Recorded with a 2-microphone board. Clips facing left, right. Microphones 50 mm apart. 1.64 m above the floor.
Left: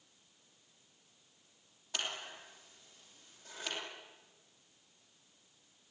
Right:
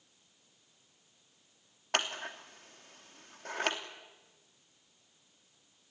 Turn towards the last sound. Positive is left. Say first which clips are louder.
# right 7 dB
turn(degrees=-60)  # may be behind; listen again after turning